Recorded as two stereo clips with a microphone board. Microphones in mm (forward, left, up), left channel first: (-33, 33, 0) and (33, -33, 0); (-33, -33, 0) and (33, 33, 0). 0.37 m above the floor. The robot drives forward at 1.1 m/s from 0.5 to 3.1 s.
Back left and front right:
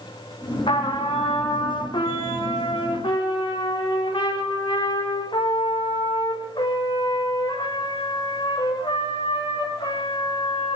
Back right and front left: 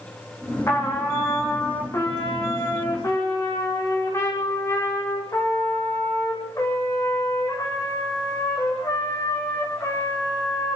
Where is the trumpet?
160° left, 5 m; by 10.8 s 170° left, 7.5 m.